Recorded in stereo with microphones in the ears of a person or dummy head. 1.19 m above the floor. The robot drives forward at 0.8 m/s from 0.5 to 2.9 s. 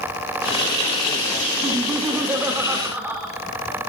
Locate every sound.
1.6 s laughter: 15° right (ahead or behind), 1.3 m; by 3.3 s 10° right (ahead or behind), 2.5 m